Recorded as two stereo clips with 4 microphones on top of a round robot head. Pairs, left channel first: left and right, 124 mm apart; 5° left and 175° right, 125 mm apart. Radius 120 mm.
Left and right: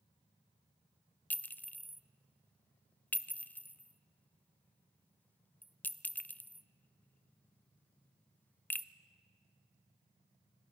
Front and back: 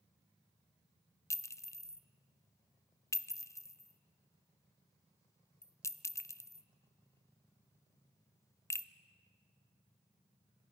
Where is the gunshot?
No gunshot in this recording.